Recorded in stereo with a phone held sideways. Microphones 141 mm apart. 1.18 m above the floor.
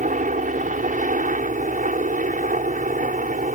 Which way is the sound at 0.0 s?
65° right (ahead or behind).